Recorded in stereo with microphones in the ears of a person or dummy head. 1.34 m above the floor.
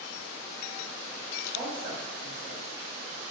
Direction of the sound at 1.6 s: 15° right (ahead or behind).